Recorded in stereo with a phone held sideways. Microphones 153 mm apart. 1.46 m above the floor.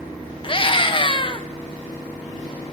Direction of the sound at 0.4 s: 35° left (ahead or behind).